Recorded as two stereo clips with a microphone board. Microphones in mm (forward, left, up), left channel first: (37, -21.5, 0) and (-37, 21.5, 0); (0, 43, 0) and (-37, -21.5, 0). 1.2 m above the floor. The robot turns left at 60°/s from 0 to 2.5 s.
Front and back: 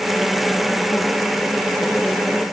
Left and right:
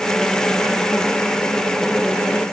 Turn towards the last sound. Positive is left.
No sound to turn to.